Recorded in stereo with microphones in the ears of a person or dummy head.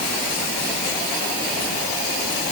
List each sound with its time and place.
Only background noise.